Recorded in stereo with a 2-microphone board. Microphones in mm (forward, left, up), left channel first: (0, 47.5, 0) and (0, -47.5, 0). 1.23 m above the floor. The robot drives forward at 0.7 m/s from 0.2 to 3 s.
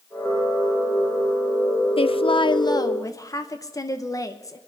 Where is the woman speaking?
75° left (ahead or behind), 0.5 m; by 4.6 s 35° left (ahead or behind), 0.9 m.